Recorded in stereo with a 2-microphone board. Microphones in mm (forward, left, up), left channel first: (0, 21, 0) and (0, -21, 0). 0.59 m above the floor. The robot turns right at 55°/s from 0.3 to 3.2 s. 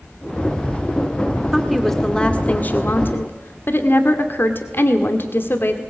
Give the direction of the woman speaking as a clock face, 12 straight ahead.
12 o'clock.